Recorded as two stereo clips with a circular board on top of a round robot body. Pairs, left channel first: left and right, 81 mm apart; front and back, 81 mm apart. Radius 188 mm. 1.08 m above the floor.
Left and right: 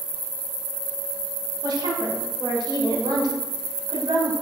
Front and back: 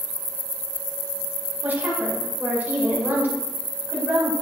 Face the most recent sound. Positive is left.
turn(degrees=-110)